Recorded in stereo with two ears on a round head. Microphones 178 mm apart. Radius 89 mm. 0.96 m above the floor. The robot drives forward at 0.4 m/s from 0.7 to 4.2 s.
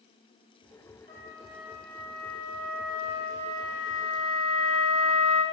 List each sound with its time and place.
1.1 s a flute: 40° left (ahead or behind), 2.5 m; by 5.4 s 65° left (ahead or behind), 1.9 m